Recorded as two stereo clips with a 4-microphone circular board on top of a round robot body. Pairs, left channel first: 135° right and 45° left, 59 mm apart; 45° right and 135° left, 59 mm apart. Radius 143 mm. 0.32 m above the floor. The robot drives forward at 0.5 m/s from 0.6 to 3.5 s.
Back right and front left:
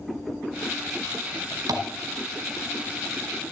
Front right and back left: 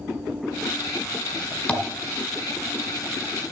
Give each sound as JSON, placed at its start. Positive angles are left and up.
{"t": 1.7, "sound": "tapping", "azimuth_deg": 25, "distance_m": 1.9}